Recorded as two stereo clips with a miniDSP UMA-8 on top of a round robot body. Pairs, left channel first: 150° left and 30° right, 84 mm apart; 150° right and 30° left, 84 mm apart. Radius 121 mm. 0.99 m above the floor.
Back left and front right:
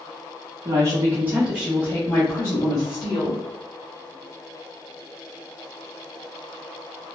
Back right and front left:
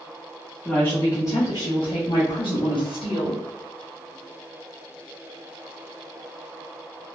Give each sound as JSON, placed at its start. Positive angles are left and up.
{"t": 0.7, "sound": "a woman speaking", "azimuth_deg": -70, "distance_m": 0.8}